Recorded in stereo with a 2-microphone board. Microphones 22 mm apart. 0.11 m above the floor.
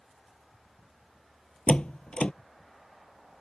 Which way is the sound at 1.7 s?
55° left (ahead or behind).